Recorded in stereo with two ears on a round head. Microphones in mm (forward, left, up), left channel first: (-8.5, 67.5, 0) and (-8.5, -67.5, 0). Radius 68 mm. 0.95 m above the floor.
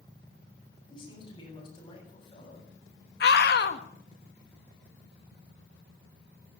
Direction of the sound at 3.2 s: 70° left (ahead or behind).